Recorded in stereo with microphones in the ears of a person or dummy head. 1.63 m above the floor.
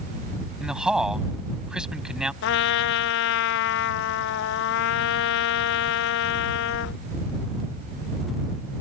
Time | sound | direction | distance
0.6 | a man speaking | centre (ahead or behind) | ?
2.4 | a trumpet | 70° left (ahead or behind) | ?